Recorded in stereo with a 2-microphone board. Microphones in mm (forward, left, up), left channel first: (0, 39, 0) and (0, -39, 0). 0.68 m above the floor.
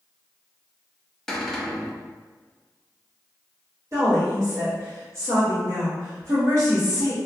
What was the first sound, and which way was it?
A cupboard door, 5° left (ahead or behind).